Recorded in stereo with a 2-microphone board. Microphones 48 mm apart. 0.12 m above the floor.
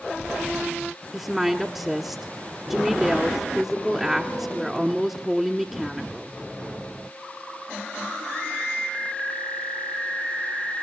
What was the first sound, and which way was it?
A woman speaking, 5° right (ahead or behind).